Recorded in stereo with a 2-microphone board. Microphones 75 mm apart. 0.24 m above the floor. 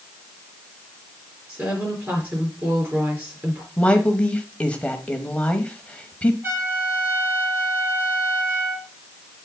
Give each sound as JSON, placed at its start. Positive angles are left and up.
{"t": 1.5, "sound": "a woman speaking", "side_deg": -25, "distance_m": 4.5}
{"t": 3.8, "sound": "a woman speaking", "side_deg": 15, "distance_m": 1.1}
{"t": 6.4, "sound": "a trumpet", "side_deg": -30, "distance_m": 6.5}